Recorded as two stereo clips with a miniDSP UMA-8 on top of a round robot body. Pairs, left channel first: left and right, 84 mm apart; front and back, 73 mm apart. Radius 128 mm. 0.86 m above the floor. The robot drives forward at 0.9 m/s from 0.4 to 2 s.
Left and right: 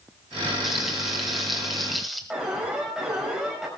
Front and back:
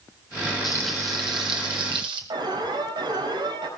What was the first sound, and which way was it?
Frying, 5° right.